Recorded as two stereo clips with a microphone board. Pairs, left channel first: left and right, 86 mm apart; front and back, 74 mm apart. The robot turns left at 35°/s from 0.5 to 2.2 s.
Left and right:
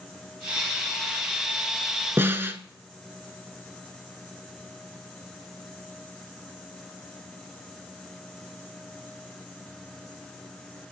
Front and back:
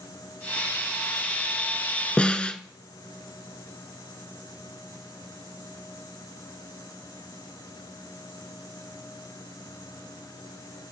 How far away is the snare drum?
About 1.0 m.